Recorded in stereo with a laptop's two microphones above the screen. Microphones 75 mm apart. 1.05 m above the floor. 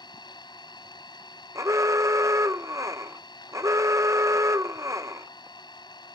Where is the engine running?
75° left (ahead or behind).